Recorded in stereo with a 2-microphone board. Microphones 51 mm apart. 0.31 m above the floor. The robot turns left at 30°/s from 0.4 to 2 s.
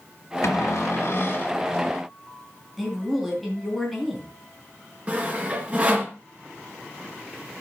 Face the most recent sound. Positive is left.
turn(degrees=-30)  # may be behind; listen again after turning